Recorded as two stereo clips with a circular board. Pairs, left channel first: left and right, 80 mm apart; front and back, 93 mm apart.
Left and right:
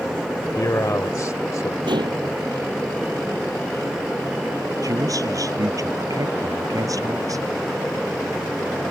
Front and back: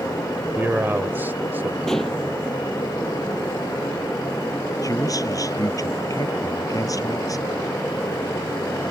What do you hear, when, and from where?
0.6 s a man speaking: 120° left
1.9 s dishes clattering: 85° right
4.8 s a man speaking: 50° right